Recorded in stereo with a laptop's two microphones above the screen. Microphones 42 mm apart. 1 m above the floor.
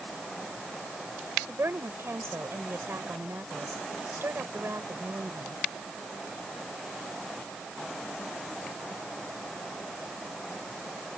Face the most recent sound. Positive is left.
turn(degrees=-80)